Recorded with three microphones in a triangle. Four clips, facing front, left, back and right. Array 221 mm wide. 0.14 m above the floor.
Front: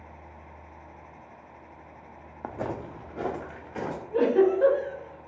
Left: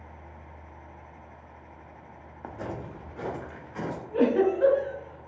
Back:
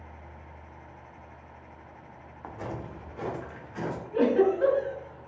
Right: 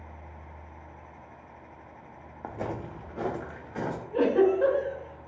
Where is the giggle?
40° right, 1.7 m.